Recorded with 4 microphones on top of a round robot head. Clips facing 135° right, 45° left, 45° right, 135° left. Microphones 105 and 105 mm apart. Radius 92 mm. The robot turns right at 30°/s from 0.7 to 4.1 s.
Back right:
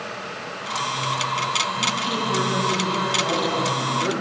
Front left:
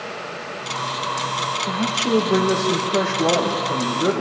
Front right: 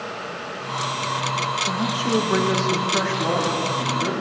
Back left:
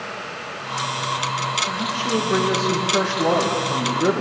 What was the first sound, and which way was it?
A man speaking, 25° left.